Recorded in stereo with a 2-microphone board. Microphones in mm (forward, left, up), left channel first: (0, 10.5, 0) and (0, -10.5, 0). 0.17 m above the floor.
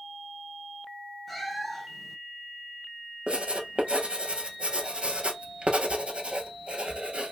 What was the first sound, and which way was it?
A cat meowing, 10° left (ahead or behind).